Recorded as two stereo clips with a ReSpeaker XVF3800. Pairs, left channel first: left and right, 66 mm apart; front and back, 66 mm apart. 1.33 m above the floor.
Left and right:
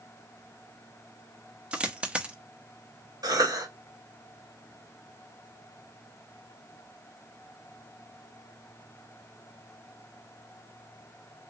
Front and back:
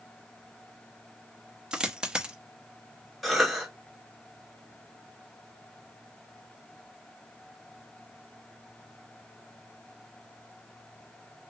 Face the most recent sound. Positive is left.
turn(degrees=-90)